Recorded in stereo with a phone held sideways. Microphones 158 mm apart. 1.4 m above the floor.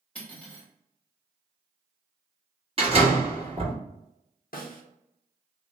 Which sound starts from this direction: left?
A snare drum, at 4.5 s.